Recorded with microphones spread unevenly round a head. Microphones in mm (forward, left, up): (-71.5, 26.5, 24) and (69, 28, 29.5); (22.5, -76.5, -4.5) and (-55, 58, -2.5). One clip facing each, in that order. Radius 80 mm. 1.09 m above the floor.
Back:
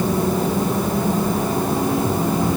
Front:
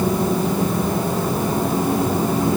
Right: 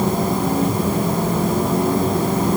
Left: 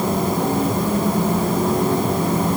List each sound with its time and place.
Only background noise.